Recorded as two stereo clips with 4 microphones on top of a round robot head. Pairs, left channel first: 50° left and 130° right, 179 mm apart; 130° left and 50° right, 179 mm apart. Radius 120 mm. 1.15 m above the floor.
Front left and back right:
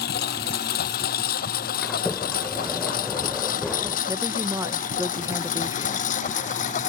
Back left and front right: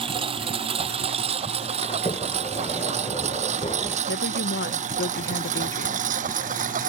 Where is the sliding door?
135° left.